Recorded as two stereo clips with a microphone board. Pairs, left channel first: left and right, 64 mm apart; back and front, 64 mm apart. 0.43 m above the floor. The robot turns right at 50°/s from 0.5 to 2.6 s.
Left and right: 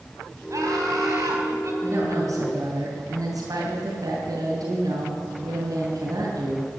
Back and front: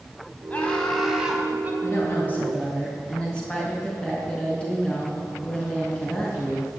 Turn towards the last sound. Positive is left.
turn(degrees=-100)